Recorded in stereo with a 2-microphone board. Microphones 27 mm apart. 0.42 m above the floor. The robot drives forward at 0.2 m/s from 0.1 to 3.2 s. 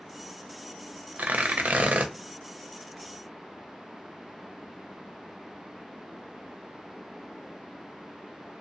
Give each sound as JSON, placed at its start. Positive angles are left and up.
{"t": 1.2, "sound": "tearing paper", "side_deg": -75, "distance_m": 0.5}